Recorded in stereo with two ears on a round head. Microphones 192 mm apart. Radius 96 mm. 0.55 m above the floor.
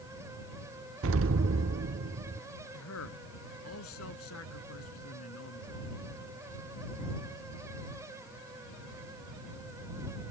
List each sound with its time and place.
1.0 s an explosion: 65° right (ahead or behind)
2.7 s a man speaking: 75° left (ahead or behind)